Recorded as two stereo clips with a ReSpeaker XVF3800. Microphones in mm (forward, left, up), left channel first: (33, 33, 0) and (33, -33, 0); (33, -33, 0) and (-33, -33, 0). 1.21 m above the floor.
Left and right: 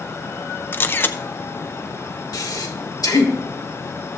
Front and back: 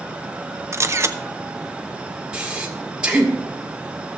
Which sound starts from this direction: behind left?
A camera shutter, at 0.7 s.